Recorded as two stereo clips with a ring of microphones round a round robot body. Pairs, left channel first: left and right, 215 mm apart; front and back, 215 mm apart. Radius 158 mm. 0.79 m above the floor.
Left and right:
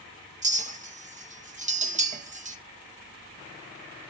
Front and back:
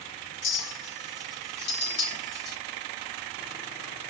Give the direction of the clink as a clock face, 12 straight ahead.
1 o'clock.